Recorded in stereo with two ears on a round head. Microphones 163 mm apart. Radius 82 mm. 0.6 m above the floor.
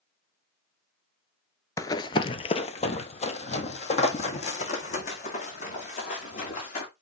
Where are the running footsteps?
15° left (ahead or behind), 0.6 m; by 6.9 s 45° left (ahead or behind), 3.5 m.